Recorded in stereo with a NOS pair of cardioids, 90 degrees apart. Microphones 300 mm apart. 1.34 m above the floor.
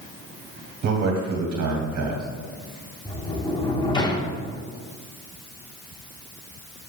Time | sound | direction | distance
0.8 | a man speaking | 70° right | 2.5 m
3.0 | a sliding door | 15° left | 1.2 m